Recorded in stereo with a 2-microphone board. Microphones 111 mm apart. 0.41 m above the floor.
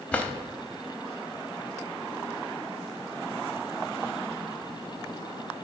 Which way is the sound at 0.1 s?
15° left (ahead or behind).